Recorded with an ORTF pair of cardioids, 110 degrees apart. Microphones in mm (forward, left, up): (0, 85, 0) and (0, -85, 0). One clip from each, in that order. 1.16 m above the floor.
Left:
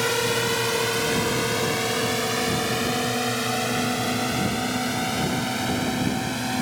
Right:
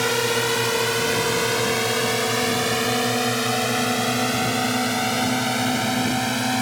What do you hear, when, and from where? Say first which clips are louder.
0.0 s a drone: right 2 dB; 25° right; by 6.6 s 60° right